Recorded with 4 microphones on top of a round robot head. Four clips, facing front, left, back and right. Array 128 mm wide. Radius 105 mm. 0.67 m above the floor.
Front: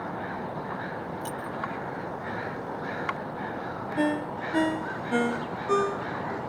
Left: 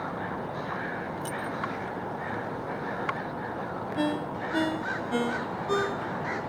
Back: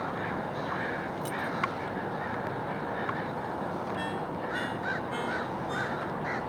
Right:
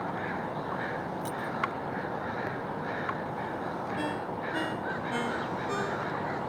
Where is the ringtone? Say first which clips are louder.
Left 4 dB, front 6 dB; 25° left.